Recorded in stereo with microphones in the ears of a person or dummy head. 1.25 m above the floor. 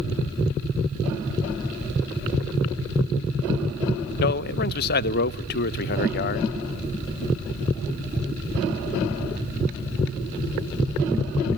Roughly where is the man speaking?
Left.